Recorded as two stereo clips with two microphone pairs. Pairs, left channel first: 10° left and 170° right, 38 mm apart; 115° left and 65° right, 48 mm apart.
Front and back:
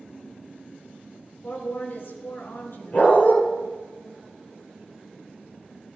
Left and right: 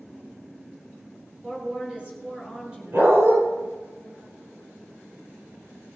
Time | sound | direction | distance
1.4 | a woman speaking | straight ahead | 4.5 m
2.9 | a dog barking | 40° right | 6.5 m